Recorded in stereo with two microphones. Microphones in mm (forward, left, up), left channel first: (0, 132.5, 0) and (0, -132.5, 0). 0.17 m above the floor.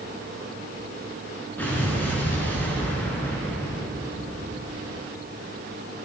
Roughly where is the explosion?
Centre.